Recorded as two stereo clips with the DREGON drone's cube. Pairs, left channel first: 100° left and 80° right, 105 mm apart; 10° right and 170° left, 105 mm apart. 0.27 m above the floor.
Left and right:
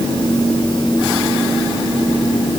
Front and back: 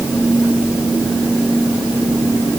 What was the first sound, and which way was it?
Only background noise.